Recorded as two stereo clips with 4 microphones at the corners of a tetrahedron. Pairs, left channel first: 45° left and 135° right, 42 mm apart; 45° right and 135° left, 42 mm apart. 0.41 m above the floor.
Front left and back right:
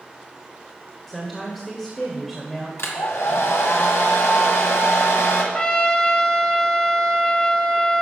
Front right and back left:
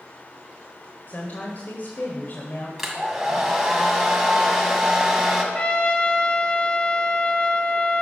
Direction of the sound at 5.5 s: 10° right.